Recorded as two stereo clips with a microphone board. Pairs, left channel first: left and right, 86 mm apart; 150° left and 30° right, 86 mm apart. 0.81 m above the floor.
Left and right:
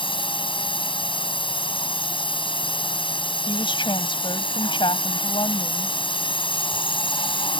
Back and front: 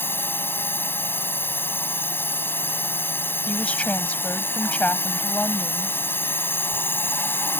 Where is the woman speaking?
75° left.